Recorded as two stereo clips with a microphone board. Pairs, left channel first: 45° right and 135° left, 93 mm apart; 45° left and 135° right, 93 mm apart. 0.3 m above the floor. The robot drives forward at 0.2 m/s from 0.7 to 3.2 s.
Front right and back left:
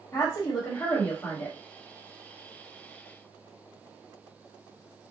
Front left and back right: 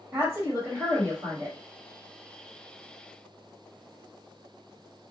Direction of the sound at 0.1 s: 95° right.